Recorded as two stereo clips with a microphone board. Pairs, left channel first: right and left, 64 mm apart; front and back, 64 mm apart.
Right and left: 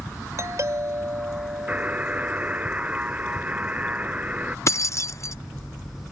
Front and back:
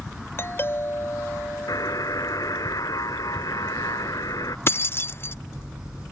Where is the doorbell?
50° left.